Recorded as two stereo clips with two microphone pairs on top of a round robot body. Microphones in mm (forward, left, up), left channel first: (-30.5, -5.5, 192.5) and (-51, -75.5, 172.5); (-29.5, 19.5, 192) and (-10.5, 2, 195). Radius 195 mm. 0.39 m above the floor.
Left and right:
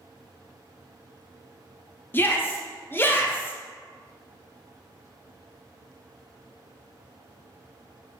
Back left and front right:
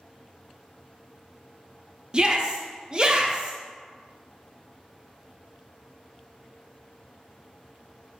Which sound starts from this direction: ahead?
A shout, at 2.1 s.